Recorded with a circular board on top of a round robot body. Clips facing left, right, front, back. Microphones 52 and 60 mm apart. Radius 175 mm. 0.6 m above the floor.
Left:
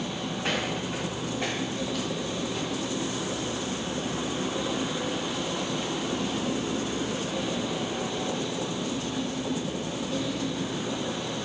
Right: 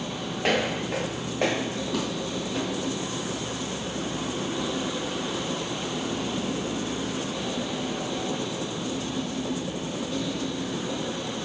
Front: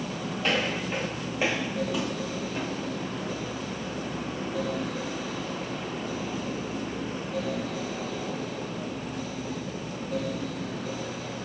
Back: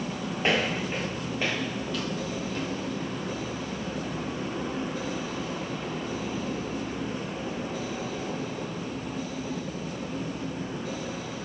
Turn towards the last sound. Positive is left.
turn(degrees=-70)